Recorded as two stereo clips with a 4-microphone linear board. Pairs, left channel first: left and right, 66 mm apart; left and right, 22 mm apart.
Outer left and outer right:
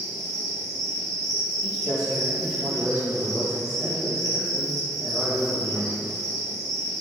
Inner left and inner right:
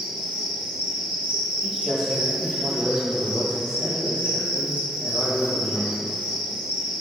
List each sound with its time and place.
0.0 s an insect: 65° right (ahead or behind), 1.1 m
1.6 s a man speaking: 10° left (ahead or behind), 1.2 m